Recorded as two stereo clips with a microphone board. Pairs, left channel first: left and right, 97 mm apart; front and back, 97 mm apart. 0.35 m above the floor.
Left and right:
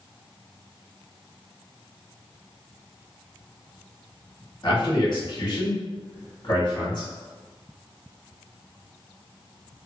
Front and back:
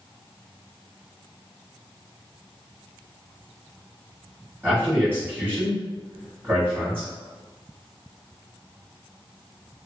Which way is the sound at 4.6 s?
120° left.